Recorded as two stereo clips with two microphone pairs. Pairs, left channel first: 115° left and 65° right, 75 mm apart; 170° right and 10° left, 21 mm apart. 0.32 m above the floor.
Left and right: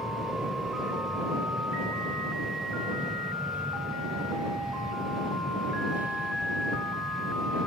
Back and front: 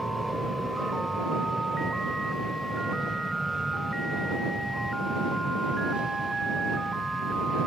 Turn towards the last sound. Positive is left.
turn(degrees=-5)